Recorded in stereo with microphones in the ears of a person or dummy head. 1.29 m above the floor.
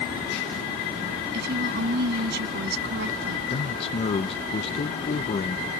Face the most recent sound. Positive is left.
turn(degrees=35)  # may be behind; listen again after turning